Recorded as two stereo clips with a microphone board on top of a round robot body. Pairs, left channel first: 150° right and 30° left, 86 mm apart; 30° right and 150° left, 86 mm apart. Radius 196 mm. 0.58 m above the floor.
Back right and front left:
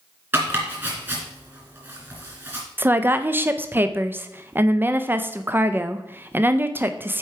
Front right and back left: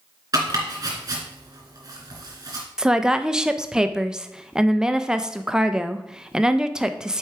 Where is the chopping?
95° left, 2.5 m.